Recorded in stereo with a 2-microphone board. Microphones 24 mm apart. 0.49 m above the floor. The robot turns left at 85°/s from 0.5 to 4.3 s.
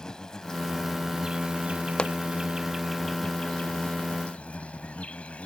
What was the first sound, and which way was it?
An insect, 35° left.